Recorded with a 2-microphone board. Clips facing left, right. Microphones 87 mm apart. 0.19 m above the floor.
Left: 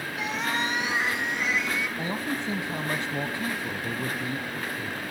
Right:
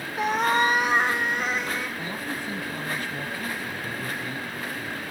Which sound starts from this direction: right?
A cat meowing, at 0.2 s.